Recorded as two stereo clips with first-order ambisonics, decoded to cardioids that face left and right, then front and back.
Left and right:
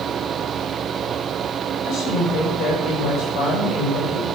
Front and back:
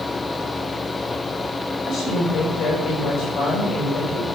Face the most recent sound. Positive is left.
turn(degrees=55)